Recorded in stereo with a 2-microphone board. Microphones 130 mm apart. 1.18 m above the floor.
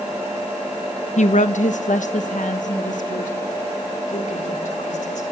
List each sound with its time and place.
1.2 s a woman speaking: 65° left (ahead or behind), 0.8 m; by 5.2 s 70° left (ahead or behind), 4 m